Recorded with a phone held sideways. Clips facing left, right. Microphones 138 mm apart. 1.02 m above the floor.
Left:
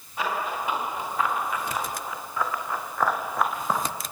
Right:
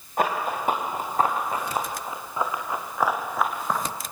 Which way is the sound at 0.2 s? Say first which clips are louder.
Right 4 dB; 50° right (ahead or behind).